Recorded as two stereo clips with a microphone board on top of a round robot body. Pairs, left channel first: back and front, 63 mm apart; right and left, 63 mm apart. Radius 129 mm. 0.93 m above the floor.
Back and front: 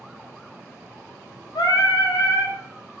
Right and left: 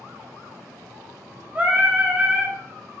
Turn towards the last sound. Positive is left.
turn(degrees=160)